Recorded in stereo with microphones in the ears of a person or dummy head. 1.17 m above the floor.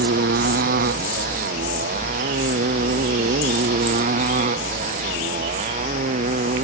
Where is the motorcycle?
55° right (ahead or behind); by 6.6 s 45° right (ahead or behind).